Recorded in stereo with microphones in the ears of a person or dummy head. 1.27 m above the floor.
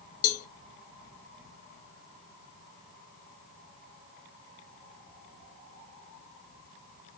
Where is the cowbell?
45° left (ahead or behind), 0.6 m.